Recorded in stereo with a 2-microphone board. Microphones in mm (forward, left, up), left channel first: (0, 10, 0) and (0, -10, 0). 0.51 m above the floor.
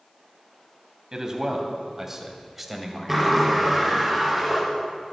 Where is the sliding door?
Centre (ahead or behind), 5.5 m.